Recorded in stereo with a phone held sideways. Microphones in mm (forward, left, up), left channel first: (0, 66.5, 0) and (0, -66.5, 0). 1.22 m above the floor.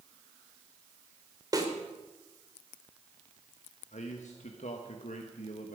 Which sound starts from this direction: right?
A snare drum, at 1.5 s.